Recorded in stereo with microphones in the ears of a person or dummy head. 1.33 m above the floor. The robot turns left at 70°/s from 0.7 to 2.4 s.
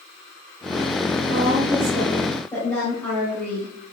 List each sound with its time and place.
1.3 s a woman speaking: 110° right, 2.5 m; by 3.7 s 175° left, 2.5 m